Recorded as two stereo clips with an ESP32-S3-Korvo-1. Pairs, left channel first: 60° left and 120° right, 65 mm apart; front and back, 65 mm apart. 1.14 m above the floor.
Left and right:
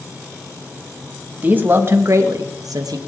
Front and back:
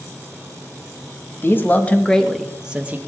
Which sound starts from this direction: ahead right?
A man speaking, at 1.4 s.